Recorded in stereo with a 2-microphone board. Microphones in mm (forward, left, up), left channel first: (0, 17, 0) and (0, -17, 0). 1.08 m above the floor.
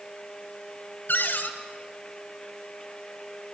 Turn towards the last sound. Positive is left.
turn(degrees=65)  # may be behind; listen again after turning